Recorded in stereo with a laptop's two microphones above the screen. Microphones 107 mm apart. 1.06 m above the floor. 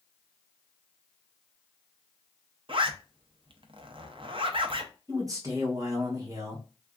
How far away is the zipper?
About 0.6 m.